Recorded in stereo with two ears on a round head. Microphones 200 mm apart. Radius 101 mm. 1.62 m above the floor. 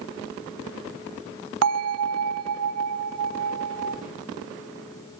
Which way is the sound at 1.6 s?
75° right (ahead or behind).